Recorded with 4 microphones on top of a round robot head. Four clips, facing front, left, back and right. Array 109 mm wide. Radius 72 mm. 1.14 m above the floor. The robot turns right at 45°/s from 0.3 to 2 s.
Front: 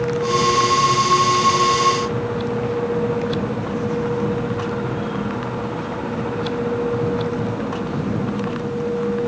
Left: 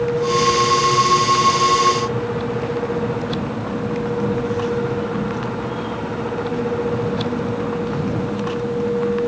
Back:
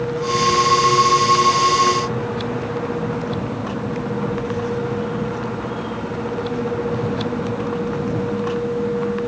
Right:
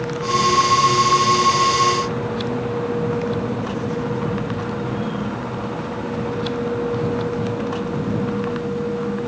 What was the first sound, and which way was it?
Only background noise.